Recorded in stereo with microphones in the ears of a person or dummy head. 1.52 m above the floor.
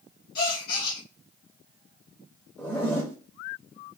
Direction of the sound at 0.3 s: 65° left (ahead or behind).